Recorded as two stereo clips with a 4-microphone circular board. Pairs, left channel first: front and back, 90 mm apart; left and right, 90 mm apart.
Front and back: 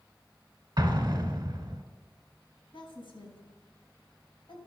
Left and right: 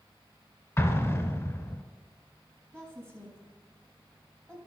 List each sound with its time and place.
0.8 s an explosion: 145° left, 1.0 m
2.7 s a woman speaking: 10° left, 4 m